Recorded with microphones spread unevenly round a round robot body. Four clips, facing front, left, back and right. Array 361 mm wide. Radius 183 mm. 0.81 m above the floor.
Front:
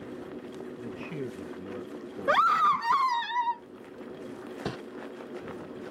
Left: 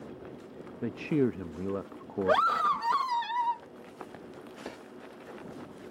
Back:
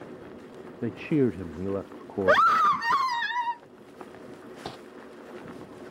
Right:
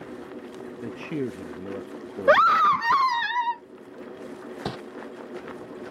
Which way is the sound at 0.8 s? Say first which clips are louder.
Left 3 dB, back 14 dB; 160° left.